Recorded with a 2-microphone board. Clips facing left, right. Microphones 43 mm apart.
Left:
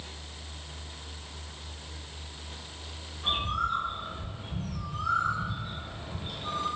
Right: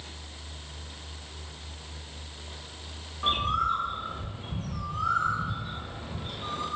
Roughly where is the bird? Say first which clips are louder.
Right 3 dB; right.